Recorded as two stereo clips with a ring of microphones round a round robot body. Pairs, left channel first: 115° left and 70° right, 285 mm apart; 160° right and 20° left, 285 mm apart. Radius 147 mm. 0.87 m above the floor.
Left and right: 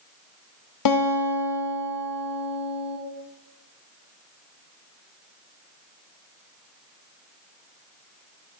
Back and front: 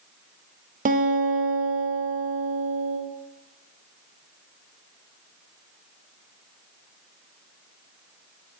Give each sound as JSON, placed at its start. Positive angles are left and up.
{"t": 0.8, "sound": "a guitar", "azimuth_deg": 85, "distance_m": 1.0}